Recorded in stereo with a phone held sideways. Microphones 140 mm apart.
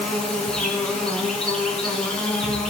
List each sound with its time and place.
0.0 s an insect: 5° left (ahead or behind), 4 m